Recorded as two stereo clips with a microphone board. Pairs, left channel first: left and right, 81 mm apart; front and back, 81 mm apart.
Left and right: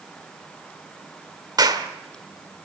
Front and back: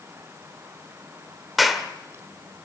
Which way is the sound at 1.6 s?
90° right.